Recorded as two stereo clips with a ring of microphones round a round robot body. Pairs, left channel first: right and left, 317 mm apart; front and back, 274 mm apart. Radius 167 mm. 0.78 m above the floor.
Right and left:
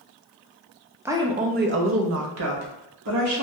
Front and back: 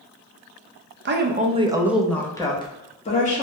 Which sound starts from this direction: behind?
A woman speaking, at 1.1 s.